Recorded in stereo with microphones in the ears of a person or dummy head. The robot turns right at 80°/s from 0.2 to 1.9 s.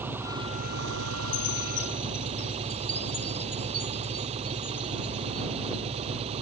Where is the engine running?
165° right; by 6.4 s 30° right.